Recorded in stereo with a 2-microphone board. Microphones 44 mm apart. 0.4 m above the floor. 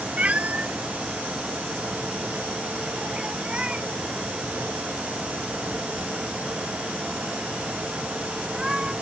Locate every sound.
0.2 s a cat meowing: 35° right (ahead or behind); by 8.9 s 15° right (ahead or behind)